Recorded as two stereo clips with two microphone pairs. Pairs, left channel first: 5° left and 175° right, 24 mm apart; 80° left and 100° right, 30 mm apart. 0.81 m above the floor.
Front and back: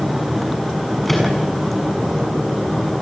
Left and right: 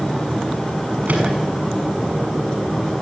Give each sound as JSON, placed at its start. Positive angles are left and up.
{"t": 1.1, "sound": "a microwave", "azimuth_deg": -80, "distance_m": 6.5}